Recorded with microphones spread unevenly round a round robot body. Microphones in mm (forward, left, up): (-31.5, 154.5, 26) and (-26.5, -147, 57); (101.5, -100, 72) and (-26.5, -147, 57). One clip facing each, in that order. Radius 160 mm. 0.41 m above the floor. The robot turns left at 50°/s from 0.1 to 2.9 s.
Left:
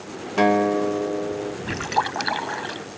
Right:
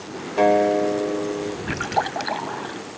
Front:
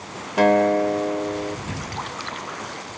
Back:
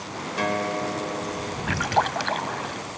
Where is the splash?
Straight behind; by 2.9 s 120° left.